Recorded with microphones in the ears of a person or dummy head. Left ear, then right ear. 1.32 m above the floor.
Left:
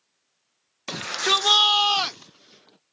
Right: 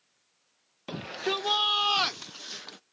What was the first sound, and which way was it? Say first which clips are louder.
A shout: left 9 dB; 60° left (ahead or behind).